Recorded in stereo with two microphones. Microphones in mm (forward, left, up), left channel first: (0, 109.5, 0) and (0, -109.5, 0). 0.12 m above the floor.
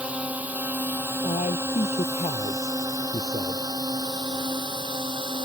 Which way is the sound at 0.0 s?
5° right (ahead or behind).